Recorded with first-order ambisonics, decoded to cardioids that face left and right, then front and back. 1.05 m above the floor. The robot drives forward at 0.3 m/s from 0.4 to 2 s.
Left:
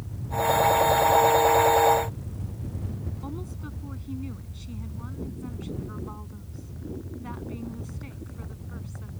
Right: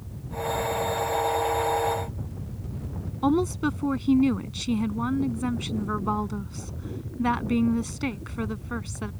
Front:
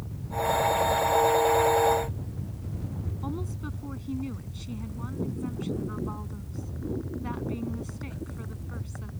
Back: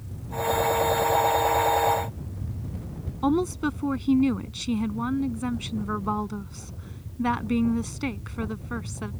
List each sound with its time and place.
3.2 s a woman speaking: 130° right